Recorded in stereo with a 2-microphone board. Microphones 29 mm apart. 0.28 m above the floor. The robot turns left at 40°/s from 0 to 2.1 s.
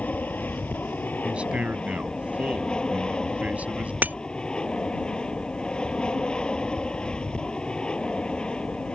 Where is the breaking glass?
85° right.